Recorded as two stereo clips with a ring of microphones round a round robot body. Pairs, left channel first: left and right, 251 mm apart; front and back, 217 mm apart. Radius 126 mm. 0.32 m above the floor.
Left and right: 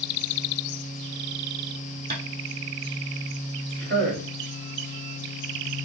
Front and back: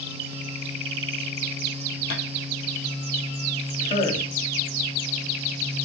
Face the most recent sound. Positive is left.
turn(degrees=-65)